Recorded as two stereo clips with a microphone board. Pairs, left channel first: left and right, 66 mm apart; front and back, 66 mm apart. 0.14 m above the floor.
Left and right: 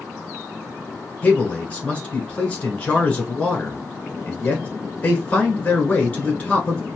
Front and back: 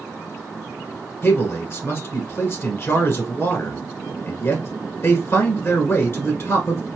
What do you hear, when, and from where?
1.2 s a man speaking: 30° left, 1.5 m